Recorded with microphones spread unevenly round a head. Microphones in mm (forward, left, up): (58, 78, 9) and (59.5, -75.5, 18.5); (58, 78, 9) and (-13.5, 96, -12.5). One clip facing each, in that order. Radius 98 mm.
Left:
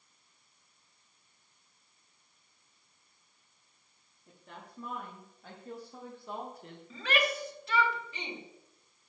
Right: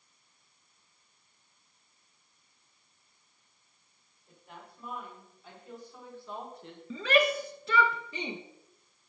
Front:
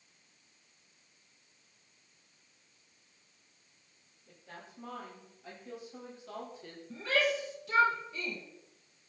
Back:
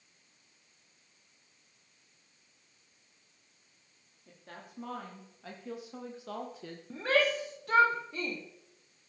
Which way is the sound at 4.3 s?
140° left.